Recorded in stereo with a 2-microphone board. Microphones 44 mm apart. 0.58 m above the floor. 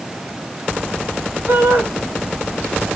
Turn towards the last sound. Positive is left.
turn(degrees=-70)  # may be behind; listen again after turning